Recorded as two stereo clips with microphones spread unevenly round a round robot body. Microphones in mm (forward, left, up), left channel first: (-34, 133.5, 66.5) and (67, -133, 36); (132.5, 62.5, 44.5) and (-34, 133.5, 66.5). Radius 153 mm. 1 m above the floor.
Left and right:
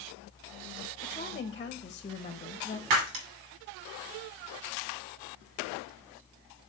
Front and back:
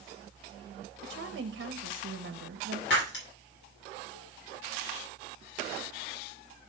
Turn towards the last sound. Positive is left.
turn(degrees=-60)